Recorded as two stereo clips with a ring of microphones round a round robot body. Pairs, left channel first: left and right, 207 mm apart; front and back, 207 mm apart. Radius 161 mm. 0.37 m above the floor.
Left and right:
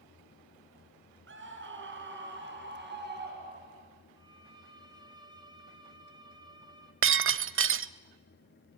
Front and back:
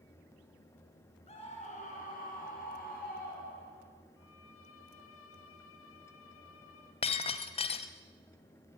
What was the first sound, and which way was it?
A scream, 70° right.